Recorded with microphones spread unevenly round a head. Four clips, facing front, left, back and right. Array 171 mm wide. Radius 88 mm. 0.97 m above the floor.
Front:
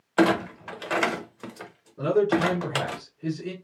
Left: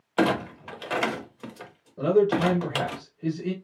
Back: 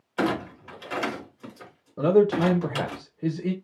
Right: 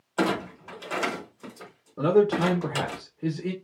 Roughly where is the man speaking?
Behind right.